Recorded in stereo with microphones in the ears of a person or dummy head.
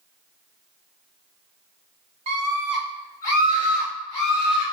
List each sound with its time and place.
2.3 s a scream: 25° right (ahead or behind), 0.5 m; by 4.6 s 35° left (ahead or behind), 1.5 m